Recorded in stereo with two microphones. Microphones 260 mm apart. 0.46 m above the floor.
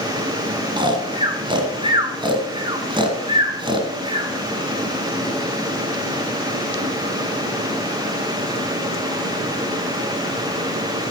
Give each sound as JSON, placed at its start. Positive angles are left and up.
{"t": 0.8, "sound": "snoring", "side_deg": -20, "distance_m": 1.6}